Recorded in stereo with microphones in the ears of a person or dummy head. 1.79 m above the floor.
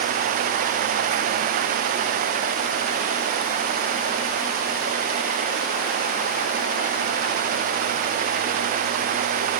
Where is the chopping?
No chopping in this recording.